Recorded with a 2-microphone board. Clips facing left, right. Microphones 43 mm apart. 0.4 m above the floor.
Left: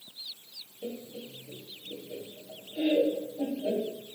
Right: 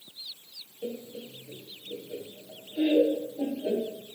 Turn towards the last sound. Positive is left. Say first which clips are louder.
# right 2 dB
turn(degrees=-15)  # may be behind; listen again after turning